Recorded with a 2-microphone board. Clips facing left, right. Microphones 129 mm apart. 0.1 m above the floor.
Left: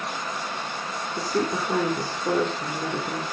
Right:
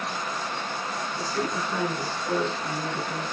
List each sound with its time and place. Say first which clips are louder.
1.2 s a woman speaking: left 5 dB; 60° left (ahead or behind), 4 m